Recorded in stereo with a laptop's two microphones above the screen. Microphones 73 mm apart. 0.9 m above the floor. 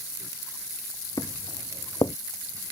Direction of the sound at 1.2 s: 65° left (ahead or behind).